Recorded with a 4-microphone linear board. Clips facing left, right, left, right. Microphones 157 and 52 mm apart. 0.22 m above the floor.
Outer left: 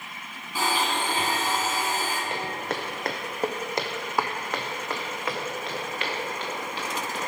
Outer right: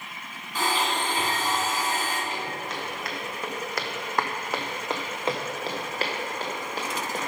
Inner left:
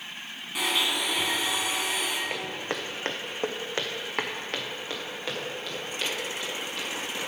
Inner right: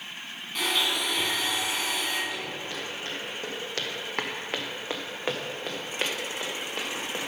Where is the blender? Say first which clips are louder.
Even, even; 10° left (ahead or behind), 2 m.